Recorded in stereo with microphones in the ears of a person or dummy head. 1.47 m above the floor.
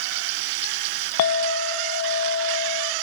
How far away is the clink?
About 0.6 m.